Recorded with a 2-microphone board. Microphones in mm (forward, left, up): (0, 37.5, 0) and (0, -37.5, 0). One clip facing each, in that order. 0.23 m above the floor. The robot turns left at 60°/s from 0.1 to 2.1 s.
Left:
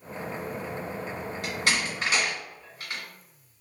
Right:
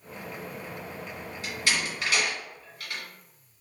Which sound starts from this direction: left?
A door slam, at 1.4 s.